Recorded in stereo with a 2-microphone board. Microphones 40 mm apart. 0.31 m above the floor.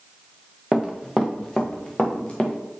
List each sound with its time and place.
0.7 s running footsteps: 5° right (ahead or behind), 1.7 m; by 2.5 s 30° left (ahead or behind), 3 m